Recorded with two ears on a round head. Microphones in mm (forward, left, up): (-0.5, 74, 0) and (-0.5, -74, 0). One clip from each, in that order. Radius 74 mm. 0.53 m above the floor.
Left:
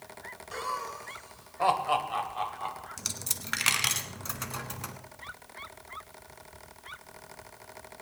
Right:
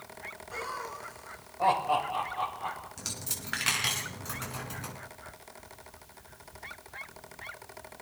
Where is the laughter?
70° left (ahead or behind), 2 m; by 2.9 s 30° left (ahead or behind), 2.5 m.